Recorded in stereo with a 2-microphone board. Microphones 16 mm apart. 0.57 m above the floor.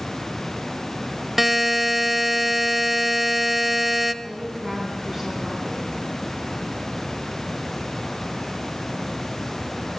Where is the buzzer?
20° right (ahead or behind), 0.6 m.